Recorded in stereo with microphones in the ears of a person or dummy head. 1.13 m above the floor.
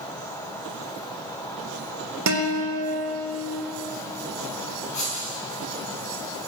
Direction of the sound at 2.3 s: 70° right (ahead or behind).